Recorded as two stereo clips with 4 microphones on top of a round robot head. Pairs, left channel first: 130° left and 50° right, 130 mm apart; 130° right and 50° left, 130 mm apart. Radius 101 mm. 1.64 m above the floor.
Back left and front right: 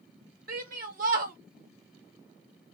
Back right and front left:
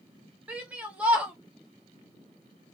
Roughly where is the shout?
Ahead right.